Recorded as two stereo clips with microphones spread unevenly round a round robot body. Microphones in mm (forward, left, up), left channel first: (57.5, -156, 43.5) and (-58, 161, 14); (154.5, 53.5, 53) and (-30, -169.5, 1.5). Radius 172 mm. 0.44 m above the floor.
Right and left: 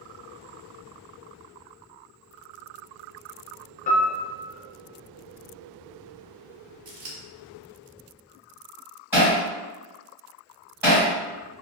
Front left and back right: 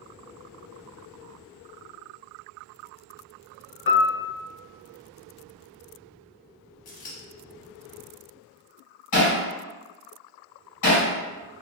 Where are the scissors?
70° left, 0.7 m.